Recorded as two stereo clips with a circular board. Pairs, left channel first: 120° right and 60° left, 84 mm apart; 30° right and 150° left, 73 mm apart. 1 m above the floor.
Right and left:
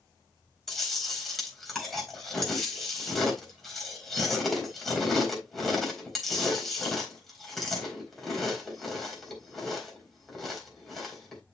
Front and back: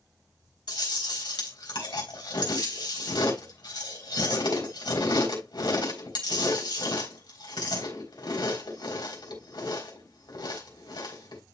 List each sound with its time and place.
0.7 s chewing: 30° right, 4 m